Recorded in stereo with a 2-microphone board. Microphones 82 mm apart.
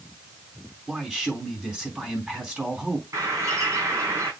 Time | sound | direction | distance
0.9 | a man speaking | 10° right (ahead or behind) | 3.5 m
3.1 | a bird | 35° right (ahead or behind) | 4 m